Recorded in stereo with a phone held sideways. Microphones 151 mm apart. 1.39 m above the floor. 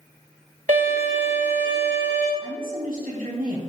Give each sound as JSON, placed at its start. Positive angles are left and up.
{"t": 0.7, "sound": "a violin", "side_deg": -70, "distance_m": 3.0}
{"t": 2.4, "sound": "a woman speaking", "side_deg": -85, "distance_m": 3.5}